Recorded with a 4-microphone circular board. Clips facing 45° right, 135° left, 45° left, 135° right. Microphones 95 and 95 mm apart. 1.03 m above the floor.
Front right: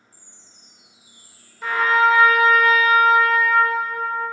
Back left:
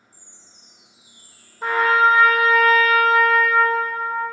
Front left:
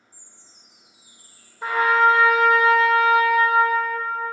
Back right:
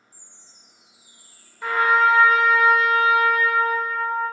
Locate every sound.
0.1 s a chime: 10° left, 1.4 m
1.6 s a trumpet: 100° left, 1.0 m